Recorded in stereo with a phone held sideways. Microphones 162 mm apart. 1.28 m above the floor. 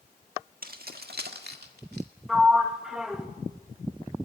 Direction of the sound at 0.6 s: 65° right (ahead or behind).